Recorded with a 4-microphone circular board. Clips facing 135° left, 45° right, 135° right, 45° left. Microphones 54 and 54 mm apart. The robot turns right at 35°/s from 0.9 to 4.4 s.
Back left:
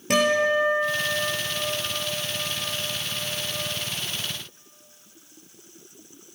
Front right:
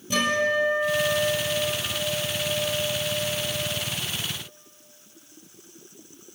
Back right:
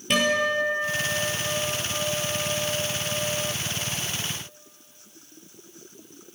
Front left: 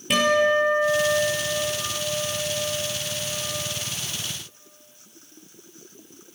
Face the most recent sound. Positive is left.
turn(degrees=-105)